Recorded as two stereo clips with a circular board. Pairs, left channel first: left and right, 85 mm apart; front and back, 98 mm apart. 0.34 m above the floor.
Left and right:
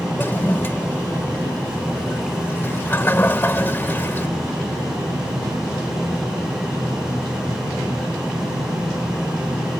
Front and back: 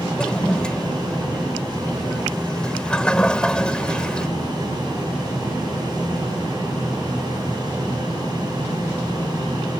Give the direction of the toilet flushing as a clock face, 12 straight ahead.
10 o'clock.